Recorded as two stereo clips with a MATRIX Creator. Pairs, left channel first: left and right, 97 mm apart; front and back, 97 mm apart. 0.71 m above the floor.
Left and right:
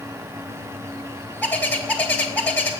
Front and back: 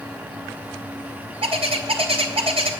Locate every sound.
1.4 s a bird: 160° left, 1.3 m